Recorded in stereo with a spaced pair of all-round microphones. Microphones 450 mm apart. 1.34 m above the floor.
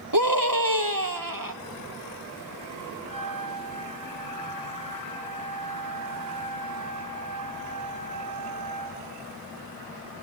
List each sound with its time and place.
0.1 s a scream: 50° right (ahead or behind), 1.4 m
3.1 s a trumpet: 15° left (ahead or behind), 4.5 m